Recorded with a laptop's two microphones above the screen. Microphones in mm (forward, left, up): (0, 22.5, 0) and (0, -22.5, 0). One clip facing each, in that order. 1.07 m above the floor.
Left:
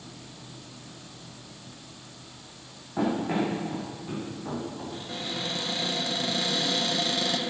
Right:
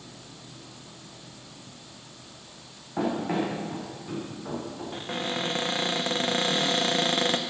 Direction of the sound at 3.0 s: 10° right (ahead or behind).